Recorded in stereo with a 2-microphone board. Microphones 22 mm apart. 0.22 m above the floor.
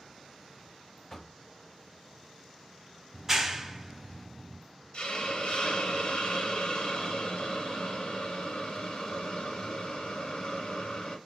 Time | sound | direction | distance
1.1 | knocking | 25° left (ahead or behind) | 0.6 m
3.1 | a clap | 10° right (ahead or behind) | 0.7 m
4.9 | a hiss | 55° left (ahead or behind) | 1.7 m